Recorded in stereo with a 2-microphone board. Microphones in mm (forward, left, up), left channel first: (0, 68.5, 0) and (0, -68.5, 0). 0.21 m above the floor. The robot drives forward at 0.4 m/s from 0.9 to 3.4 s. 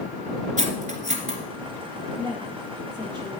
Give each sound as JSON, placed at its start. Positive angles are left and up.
{"t": 0.6, "sound": "cutlery clinking", "side_deg": -65, "distance_m": 1.8}
{"t": 2.2, "sound": "a woman speaking", "side_deg": -30, "distance_m": 5.0}